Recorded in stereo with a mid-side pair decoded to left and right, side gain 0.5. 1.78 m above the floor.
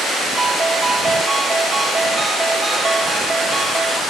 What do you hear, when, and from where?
0.4 s a ringtone: 20° right